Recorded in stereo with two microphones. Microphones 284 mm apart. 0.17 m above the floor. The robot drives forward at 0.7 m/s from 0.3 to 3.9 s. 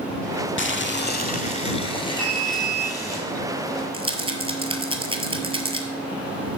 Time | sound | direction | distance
0.6 | boiling | 45° left (ahead or behind) | 0.5 m
2.2 | an alarm | 55° right (ahead or behind) | 2.0 m
3.9 | a rattle | 20° right (ahead or behind) | 0.8 m